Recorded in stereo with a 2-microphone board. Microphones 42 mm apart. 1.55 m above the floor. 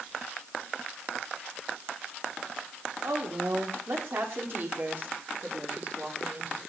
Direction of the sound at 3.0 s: 75° right (ahead or behind).